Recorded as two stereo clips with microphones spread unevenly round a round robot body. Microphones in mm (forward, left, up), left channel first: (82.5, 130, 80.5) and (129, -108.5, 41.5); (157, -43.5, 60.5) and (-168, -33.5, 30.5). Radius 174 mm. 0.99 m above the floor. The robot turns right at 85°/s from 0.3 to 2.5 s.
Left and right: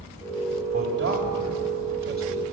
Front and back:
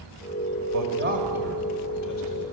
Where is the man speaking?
150° right, 4 m; by 2.4 s 5° right, 4 m.